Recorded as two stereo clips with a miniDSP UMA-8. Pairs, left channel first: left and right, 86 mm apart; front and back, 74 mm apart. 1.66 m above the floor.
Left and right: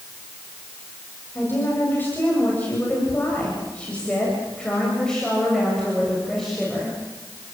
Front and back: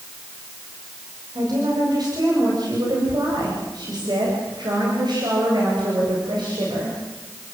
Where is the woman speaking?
155° left, 8 m; by 7.0 s straight behind, 8 m.